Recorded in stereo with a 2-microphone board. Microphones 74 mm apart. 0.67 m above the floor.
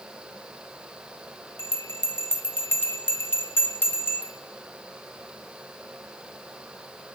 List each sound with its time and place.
1.6 s a bell: 30° left (ahead or behind), 0.7 m